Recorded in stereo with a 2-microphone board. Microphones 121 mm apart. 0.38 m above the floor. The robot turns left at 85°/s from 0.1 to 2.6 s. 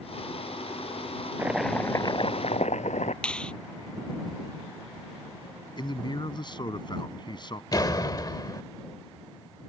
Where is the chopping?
160° right; by 3.1 s 100° left.